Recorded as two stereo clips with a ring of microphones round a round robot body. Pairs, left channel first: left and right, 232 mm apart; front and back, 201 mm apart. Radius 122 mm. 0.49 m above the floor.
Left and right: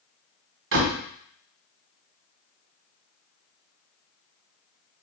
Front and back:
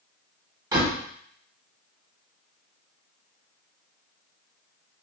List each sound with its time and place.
0.7 s a door slam: 105° right, 1.4 m